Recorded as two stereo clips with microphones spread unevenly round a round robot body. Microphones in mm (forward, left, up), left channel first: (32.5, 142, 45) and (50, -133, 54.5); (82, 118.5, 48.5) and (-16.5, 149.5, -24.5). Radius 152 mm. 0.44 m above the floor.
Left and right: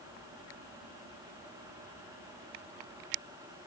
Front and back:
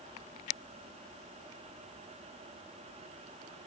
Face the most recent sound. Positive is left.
No sound to turn to.